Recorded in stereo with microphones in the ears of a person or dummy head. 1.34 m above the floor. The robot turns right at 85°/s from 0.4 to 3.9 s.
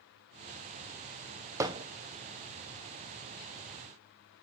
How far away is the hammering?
About 0.6 m.